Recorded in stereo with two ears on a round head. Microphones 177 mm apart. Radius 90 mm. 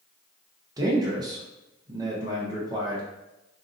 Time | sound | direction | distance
0.8 | a man speaking | 20° right (ahead or behind) | 0.6 m